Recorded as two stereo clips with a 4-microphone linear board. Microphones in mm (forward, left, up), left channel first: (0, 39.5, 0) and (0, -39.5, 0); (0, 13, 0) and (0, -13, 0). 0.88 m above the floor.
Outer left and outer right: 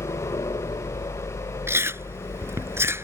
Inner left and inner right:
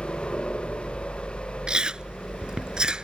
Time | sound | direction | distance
0.0 | a helicopter | 65° left (ahead or behind) | ?
1.7 | chewing | 30° right (ahead or behind) | ?